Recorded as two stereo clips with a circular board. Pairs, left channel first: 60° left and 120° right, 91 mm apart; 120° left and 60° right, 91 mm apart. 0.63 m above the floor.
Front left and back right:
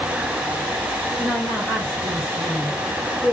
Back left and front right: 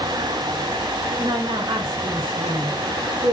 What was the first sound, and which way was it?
A woman speaking, 10° right.